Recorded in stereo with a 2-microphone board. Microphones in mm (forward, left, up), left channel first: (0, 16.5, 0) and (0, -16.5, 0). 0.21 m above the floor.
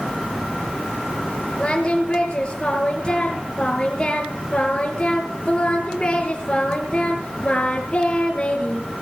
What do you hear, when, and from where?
1.6 s singing: 35° left (ahead or behind), 3 m